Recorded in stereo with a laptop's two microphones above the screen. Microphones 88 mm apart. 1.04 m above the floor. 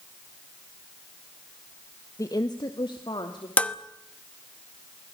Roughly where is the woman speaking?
Left.